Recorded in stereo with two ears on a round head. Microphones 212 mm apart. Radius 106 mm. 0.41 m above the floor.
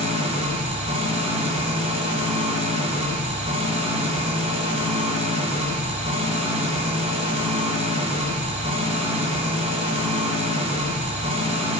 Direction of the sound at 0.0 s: 30° right (ahead or behind).